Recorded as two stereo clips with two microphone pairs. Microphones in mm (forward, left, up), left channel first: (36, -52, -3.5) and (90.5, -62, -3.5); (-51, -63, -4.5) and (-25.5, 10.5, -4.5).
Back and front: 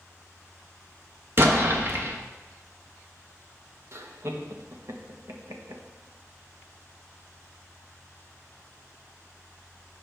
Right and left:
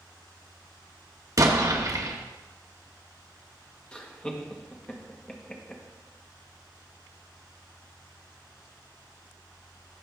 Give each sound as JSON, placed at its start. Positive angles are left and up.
{"t": 1.4, "sound": "an explosion", "azimuth_deg": 30, "distance_m": 1.2}
{"t": 3.9, "sound": "laughter", "azimuth_deg": -35, "distance_m": 1.4}